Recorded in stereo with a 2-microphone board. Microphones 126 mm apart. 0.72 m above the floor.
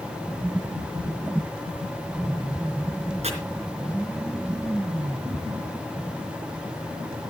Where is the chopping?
60° right (ahead or behind), 4 m.